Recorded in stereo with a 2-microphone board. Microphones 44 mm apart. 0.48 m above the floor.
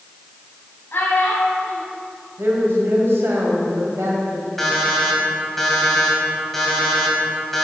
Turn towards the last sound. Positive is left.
turn(degrees=5)  # may be behind; listen again after turning